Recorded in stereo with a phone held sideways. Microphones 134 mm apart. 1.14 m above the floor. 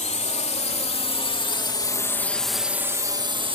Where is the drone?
60° left (ahead or behind); by 3.5 s 40° right (ahead or behind).